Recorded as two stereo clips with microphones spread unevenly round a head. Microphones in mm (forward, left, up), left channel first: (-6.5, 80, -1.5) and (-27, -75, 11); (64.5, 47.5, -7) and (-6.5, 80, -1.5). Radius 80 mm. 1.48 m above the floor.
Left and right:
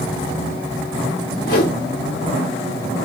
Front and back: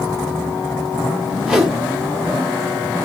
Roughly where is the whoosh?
Left.